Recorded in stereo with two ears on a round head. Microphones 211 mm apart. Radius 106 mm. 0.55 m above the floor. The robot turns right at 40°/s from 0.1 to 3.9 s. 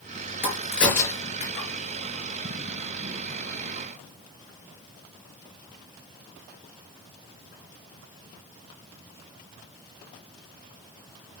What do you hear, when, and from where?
0.4 s a crack: 10° right (ahead or behind), 4 m; by 1.7 s 40° left (ahead or behind), 4 m